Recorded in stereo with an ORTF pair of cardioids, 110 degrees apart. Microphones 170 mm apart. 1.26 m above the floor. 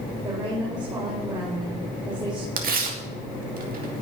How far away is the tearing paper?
About 2.5 m.